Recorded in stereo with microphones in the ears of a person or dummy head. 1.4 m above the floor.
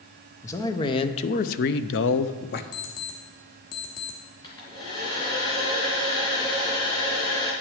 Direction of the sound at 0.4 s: 15° left (ahead or behind).